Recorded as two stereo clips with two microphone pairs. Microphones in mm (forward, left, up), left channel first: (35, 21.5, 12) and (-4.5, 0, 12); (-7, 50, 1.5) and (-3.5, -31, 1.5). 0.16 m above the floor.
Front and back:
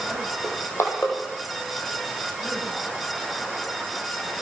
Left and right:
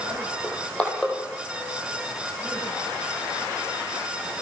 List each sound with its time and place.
0.4 s crushing: 15° left, 4.5 m